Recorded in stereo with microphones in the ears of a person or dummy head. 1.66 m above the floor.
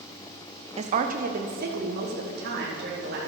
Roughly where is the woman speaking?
Right.